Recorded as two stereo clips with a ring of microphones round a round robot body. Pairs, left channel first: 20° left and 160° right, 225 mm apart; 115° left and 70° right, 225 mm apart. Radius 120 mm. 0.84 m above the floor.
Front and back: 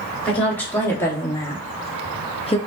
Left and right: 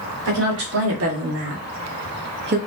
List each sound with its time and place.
0.2 s a woman speaking: 60° right, 2 m; by 2.6 s 35° right, 1.0 m